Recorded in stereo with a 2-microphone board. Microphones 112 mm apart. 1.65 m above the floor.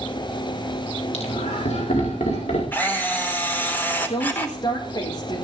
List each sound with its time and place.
1.1 s laughter: 80° left, 4 m; by 2.6 s 90° left, 5.5 m
2.7 s a camera shutter: 15° left (ahead or behind), 4 m
4.1 s a woman speaking: 45° left (ahead or behind), 4.5 m